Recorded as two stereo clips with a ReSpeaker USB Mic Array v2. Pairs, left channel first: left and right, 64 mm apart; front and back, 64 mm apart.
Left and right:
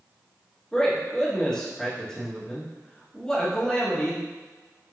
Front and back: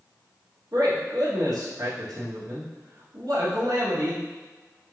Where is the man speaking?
170° left, 1.2 m.